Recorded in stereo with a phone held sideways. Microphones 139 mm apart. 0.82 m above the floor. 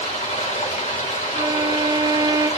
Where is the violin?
35° right (ahead or behind), 0.6 m.